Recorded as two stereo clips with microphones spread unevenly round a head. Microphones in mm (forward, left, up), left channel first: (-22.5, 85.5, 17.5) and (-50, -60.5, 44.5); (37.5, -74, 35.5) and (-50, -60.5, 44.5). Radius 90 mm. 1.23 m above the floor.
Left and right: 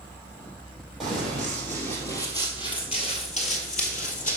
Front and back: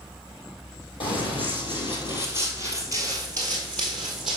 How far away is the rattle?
No rattle in this recording.